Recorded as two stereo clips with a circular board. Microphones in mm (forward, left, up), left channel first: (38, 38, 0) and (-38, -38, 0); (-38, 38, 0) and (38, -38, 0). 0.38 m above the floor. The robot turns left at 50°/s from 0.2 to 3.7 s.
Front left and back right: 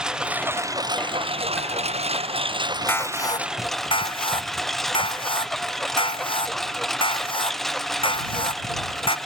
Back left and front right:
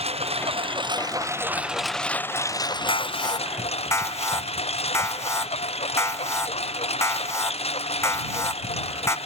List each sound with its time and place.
0.0 s a lawn mower: 50° right; by 9.3 s 135° left
2.9 s an alarm: 115° left; by 9.2 s 75° left